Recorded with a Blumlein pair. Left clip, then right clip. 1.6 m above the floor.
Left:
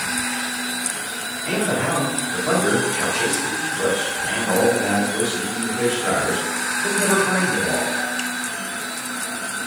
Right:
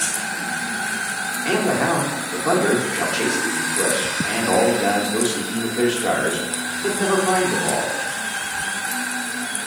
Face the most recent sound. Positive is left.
turn(degrees=-40)